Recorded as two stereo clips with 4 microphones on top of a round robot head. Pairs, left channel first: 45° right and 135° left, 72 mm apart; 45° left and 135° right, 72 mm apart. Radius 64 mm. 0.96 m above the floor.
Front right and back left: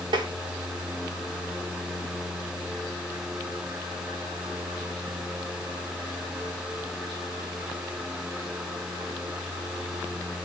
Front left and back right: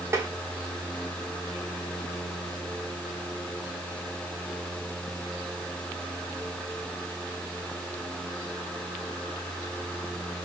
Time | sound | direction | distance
0.1 | tapping | 165° left | 0.9 m